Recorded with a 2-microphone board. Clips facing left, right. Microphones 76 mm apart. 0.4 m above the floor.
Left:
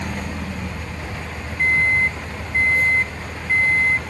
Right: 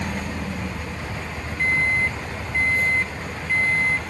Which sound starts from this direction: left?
A microwave, at 1.6 s.